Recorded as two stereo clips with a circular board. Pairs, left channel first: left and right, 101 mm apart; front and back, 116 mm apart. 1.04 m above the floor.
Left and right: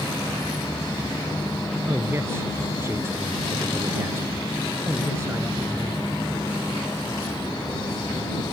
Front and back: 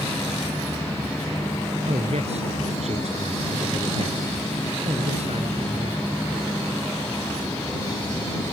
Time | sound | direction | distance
1.9 | a man speaking | 155° right | ?